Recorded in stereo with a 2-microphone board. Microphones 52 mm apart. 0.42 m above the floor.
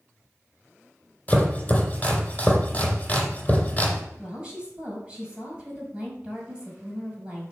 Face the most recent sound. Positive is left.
turn(degrees=-20)  # may be behind; listen again after turning